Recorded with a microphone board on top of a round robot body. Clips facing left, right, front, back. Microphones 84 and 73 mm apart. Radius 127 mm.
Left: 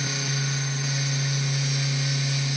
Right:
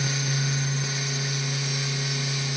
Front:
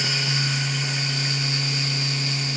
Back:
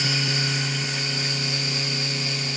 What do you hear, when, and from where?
Only background noise.